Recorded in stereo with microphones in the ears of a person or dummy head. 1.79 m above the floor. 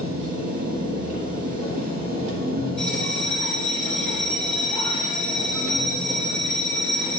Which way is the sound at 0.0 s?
45° right (ahead or behind).